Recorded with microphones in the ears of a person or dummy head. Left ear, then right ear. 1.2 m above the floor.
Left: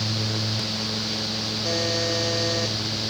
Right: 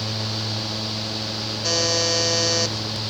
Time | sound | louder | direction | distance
1.6 | a buzzer | right 5 dB | 30° right (ahead or behind) | 1.1 m